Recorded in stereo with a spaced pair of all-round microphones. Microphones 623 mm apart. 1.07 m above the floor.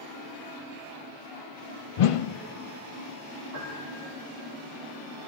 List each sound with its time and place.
2.0 s a whoosh: 60° left (ahead or behind), 0.5 m
3.5 s a piano: 30° left (ahead or behind), 7 m